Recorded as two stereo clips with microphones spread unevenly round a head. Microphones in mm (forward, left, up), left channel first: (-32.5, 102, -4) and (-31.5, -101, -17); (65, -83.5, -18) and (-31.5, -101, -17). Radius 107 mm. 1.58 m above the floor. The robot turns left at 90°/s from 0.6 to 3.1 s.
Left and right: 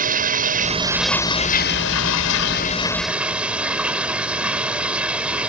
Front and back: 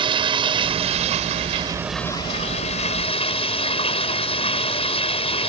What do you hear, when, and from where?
0.0 s running water: 140° right; by 5.5 s 5° right